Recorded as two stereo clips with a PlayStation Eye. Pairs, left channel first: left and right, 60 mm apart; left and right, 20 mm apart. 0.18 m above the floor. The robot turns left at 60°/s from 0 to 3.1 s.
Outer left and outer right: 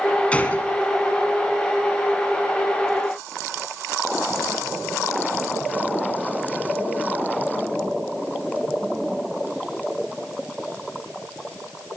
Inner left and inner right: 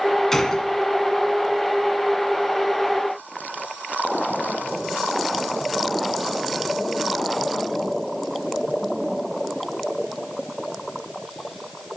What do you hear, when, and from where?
0.3 s a gunshot: 20° left (ahead or behind), 1.5 m; by 0.7 s 35° left (ahead or behind), 1.5 m